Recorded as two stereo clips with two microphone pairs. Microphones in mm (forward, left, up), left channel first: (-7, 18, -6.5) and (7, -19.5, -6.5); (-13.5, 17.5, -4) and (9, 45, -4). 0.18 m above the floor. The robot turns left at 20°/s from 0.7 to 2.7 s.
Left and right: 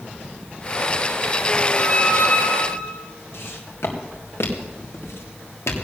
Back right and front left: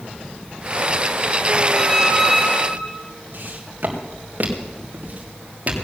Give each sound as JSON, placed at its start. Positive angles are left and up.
{"t": 1.7, "sound": "a squeak", "azimuth_deg": 155, "distance_m": 4.5}
{"t": 3.3, "sound": "footsteps", "azimuth_deg": 90, "distance_m": 4.5}